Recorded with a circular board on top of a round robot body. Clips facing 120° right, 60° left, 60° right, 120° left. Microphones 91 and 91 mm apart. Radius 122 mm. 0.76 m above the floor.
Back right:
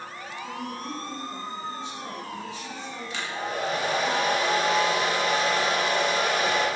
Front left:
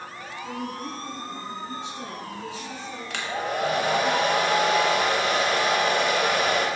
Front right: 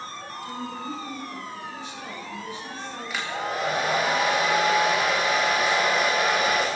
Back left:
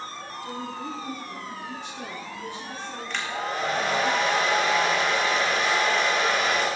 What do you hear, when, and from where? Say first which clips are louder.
0.4 s a woman speaking: front left 2 dB, even; 90° left, 8.5 m; by 4.1 s 85° left, 11.5 m
3.1 s a hair dryer: front left 3 dB, front right 1 dB; 25° left, 3 m